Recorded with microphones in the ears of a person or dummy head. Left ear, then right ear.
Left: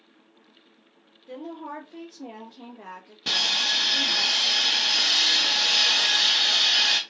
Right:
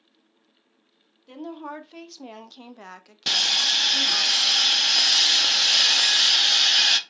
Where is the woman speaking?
35° right (ahead or behind), 1.0 m; by 4.3 s 50° right (ahead or behind), 1.1 m.